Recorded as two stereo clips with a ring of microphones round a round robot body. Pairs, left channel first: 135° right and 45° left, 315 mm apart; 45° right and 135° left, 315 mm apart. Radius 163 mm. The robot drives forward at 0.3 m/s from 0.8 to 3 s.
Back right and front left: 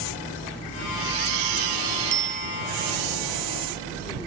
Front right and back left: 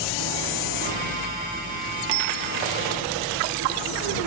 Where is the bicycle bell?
100° left; by 2.6 s 105° left.